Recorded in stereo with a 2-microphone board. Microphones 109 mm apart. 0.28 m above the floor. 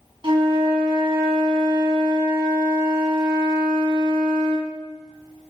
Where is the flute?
50° right (ahead or behind), 2.5 m.